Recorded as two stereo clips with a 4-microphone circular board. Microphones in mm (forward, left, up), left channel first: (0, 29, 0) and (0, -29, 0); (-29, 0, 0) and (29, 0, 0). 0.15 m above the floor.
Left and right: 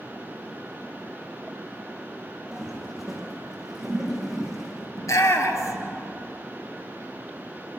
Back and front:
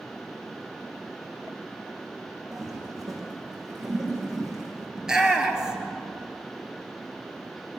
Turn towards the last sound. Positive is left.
turn(degrees=80)